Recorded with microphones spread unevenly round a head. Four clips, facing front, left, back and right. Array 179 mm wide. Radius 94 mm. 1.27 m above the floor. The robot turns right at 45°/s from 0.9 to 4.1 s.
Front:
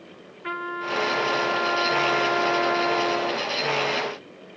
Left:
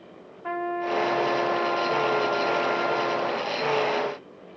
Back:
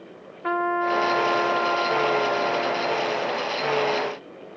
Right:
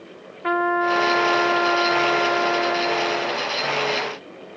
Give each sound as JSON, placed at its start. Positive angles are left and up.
{"t": 0.4, "sound": "a trumpet", "azimuth_deg": -100, "distance_m": 1.3}